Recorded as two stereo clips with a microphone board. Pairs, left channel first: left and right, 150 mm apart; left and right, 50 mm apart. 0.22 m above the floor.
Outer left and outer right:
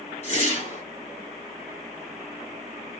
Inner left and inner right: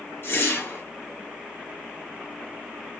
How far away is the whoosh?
About 2 m.